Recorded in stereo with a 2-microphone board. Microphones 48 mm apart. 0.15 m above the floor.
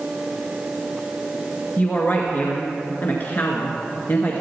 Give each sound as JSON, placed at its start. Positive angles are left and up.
{"t": 1.8, "sound": "a woman speaking", "side_deg": 45, "distance_m": 1.7}